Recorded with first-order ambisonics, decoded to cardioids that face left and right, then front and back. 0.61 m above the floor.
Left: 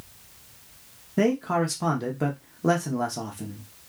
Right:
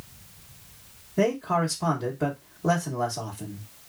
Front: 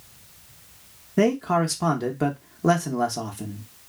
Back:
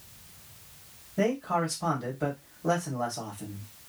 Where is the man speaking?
25° left, 0.8 m.